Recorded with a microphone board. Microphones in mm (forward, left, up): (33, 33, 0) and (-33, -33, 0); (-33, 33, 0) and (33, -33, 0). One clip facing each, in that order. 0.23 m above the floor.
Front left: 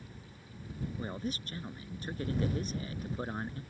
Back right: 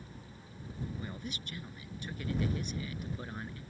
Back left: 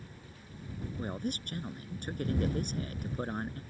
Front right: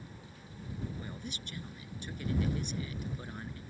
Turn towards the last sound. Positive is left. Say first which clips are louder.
# front left 5 dB, back left 7 dB
turn(degrees=100)